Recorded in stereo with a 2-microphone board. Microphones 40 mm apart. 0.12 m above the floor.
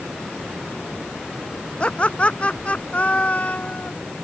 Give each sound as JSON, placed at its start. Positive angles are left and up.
{"t": 1.8, "sound": "laughter", "side_deg": 25}